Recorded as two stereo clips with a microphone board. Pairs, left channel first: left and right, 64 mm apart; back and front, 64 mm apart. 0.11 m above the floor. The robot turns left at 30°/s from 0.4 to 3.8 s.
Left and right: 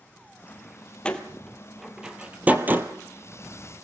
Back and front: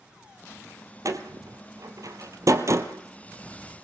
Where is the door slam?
20° left, 2 m; by 2.9 s 35° right, 2 m.